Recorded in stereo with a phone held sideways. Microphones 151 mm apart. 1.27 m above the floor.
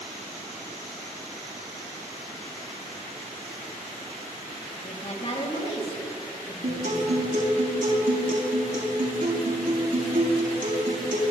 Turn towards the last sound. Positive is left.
turn(degrees=-70)  # may be behind; listen again after turning